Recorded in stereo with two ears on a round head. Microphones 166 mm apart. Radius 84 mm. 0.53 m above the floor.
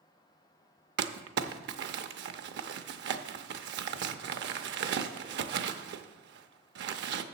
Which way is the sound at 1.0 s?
60° right (ahead or behind).